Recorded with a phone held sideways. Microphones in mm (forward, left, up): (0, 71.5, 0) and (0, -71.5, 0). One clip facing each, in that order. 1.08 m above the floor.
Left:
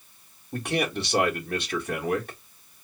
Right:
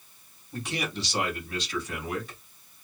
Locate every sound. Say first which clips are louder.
0.5 s a man speaking: left 6 dB; 60° left (ahead or behind), 1.2 m